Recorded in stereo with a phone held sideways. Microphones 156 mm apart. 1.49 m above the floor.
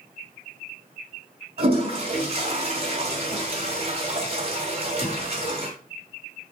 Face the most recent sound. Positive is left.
turn(degrees=-40)  # may be behind; listen again after turning